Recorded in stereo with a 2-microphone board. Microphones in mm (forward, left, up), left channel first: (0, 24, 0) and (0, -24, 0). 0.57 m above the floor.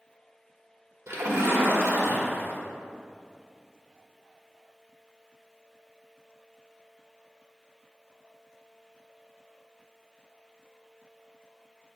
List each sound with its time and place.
1.1 s a splash: 75° right (ahead or behind), 1.0 m